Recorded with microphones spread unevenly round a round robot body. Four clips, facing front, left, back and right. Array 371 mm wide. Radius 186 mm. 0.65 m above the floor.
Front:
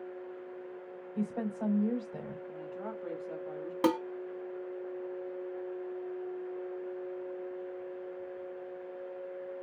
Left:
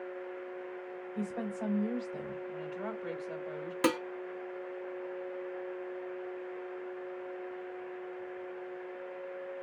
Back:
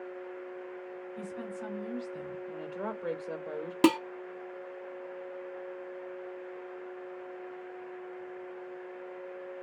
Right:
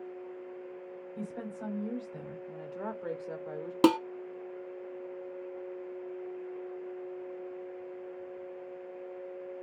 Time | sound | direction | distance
1.1 | a woman speaking | 15° left | 3 m
2.5 | a woman speaking | 135° right | 2.5 m
3.8 | dishes clattering | 130° right | 0.7 m